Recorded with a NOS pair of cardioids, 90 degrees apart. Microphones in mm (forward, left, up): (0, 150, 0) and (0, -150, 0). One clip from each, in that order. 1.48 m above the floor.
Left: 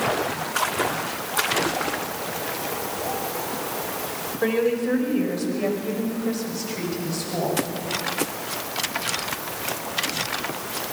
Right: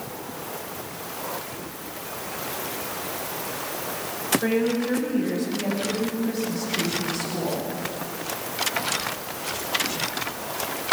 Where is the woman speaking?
50° left, 6 m; by 7.7 s 75° left, 8 m.